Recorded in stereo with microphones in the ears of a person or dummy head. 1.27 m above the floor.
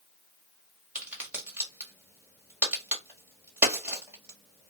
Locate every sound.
0.9 s a crack: 5° right (ahead or behind), 1.3 m